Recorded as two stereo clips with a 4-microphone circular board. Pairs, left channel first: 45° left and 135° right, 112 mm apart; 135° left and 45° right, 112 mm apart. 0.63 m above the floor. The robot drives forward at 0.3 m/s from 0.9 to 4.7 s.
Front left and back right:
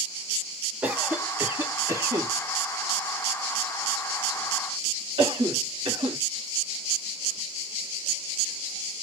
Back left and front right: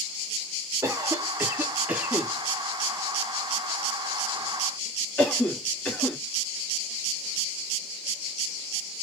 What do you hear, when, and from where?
0.8 s a cough: 65° right, 0.9 m; by 6.2 s 155° right, 1.3 m